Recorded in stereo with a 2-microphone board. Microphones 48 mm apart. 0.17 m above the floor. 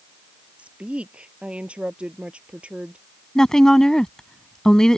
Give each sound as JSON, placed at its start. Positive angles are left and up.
{"t": 0.6, "sound": "a woman speaking", "side_deg": -25}
{"t": 3.4, "sound": "a woman speaking", "side_deg": 15}